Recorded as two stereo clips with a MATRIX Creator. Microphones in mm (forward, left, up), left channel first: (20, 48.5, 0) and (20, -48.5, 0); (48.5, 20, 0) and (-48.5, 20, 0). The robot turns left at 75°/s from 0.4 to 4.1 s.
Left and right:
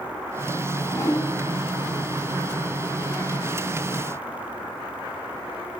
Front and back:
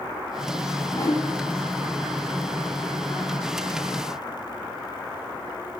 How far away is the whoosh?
About 1.0 m.